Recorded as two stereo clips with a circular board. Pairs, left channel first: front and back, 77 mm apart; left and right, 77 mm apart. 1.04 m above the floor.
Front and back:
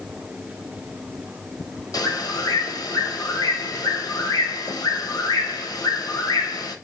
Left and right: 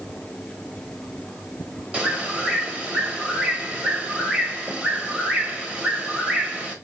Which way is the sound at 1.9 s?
15° right.